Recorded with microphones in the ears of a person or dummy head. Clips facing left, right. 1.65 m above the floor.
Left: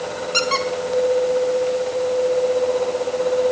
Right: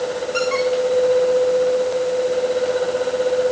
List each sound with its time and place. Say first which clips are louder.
0.3 s a squeak: right 5 dB; 55° left (ahead or behind), 1.9 m